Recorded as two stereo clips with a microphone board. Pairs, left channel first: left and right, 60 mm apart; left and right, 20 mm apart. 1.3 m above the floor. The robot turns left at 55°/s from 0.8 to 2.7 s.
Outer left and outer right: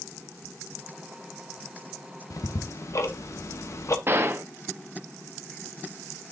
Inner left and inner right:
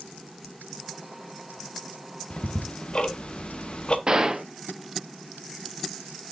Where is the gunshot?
40° right (ahead or behind), 0.8 m.